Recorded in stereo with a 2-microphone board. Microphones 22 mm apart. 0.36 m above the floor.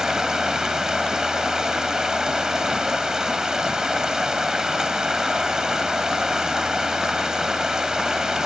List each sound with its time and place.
0.0 s running water: 30° right (ahead or behind), 1.3 m